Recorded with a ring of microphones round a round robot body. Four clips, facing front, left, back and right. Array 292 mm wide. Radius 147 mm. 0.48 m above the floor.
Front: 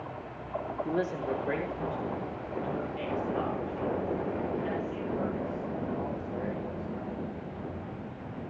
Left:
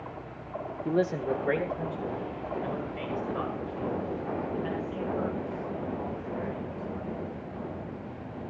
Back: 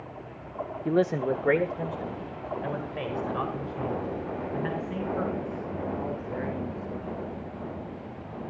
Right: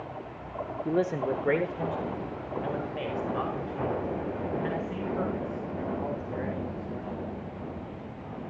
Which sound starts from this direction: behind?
A man speaking, at 0.8 s.